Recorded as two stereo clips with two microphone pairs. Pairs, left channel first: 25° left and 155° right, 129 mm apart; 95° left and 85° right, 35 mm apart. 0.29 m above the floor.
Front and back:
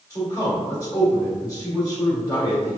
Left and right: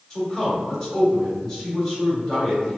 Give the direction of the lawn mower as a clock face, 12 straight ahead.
I don't hear a lawn mower.